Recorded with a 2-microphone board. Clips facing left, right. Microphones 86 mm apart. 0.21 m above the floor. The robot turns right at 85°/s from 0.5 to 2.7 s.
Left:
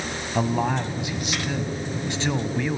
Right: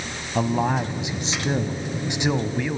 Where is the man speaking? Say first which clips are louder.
Right 2 dB; centre (ahead or behind), 1.1 m; by 2.8 s 5° left (ahead or behind), 1.1 m.